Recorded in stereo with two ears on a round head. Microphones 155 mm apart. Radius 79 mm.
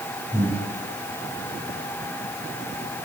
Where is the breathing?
10° left (ahead or behind), 9.5 m.